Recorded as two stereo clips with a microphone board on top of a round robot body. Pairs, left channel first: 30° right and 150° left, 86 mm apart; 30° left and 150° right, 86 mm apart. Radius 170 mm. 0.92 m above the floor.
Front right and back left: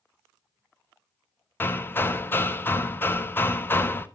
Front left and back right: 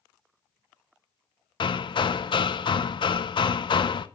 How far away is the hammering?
About 0.9 m.